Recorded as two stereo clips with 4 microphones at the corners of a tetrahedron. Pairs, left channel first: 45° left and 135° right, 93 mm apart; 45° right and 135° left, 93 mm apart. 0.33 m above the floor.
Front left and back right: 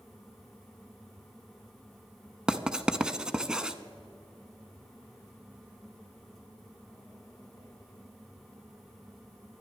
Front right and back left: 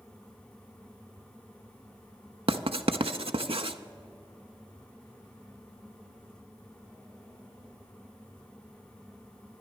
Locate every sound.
2.5 s writing: 145° left, 0.5 m